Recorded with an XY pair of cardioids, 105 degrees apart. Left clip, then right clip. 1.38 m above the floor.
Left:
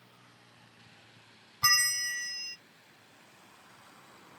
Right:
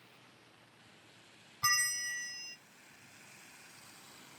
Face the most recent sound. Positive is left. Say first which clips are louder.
# left 6 dB
turn(degrees=40)